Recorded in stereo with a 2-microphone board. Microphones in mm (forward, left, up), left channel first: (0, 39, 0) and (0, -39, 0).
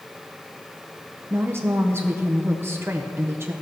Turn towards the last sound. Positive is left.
turn(degrees=-30)  # may be behind; listen again after turning